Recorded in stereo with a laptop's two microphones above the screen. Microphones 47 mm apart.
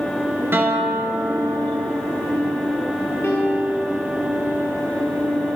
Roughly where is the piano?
Left.